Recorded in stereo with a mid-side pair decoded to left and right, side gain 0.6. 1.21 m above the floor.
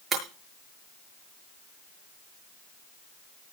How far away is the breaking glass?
About 6 m.